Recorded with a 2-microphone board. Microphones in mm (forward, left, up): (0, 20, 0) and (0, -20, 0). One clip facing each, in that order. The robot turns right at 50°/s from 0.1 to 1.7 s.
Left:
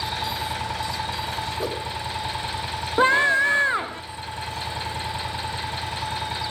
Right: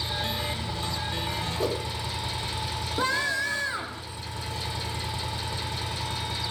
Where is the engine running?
65° left, 3 m; by 6.5 s 145° left, 3 m.